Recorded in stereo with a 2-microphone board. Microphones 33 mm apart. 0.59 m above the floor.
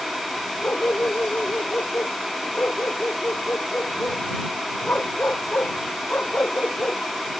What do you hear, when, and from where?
0.6 s a dog barking: 75° left (ahead or behind)